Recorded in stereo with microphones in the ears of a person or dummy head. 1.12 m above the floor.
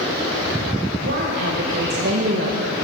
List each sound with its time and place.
1.0 s a woman speaking: 55° right (ahead or behind), 0.9 m